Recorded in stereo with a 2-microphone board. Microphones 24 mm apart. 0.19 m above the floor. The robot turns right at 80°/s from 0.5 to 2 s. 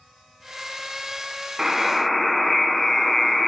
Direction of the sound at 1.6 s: 20° right.